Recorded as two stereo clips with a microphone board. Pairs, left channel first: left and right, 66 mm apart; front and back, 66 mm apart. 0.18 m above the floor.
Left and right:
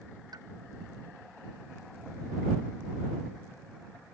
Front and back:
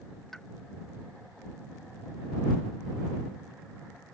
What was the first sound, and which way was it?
A pop, 85° right.